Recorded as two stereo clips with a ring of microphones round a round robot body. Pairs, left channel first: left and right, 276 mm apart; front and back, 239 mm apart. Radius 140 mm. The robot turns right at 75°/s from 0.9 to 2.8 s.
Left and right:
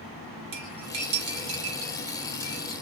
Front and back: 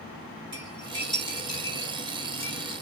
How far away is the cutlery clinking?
About 1.5 m.